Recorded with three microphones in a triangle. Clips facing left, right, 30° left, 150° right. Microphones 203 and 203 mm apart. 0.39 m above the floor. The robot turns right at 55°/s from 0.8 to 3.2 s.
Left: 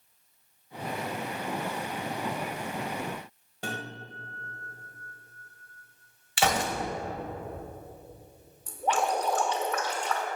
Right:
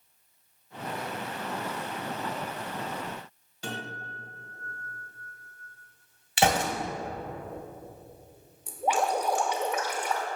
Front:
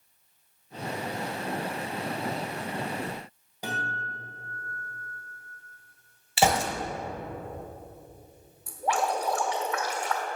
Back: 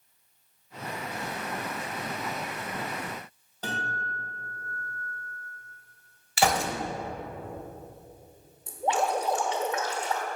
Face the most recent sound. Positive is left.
turn(degrees=-150)